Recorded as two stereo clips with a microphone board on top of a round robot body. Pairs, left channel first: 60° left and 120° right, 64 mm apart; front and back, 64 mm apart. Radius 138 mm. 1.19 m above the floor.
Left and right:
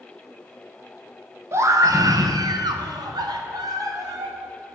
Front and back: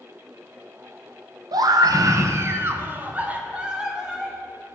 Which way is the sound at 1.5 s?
170° right.